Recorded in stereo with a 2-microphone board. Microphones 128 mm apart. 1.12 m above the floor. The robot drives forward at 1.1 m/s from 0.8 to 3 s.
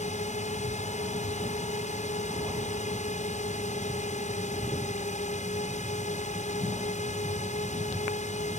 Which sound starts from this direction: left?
A drone, at 0.0 s.